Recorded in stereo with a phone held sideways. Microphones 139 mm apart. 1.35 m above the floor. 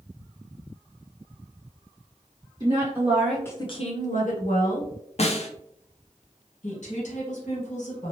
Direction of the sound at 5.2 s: 50° left (ahead or behind).